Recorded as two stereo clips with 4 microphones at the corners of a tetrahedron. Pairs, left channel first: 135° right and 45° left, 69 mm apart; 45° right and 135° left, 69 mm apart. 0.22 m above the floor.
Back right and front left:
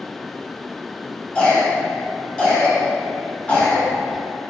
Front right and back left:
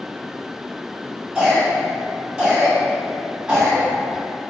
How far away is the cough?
About 1.0 m.